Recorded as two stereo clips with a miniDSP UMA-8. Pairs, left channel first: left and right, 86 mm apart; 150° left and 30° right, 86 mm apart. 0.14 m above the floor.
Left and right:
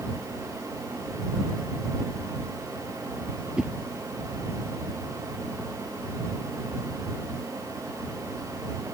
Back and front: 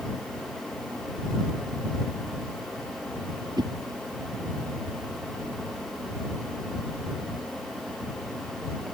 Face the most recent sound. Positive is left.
turn(degrees=-10)